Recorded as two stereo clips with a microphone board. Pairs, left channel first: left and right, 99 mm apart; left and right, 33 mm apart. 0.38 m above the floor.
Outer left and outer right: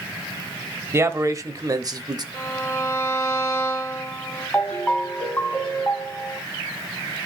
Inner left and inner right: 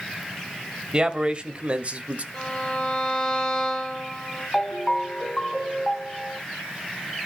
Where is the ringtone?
15° left (ahead or behind), 2.5 m.